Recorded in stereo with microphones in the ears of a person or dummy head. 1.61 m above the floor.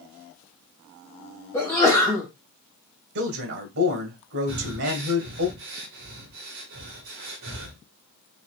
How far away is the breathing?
About 1.3 m.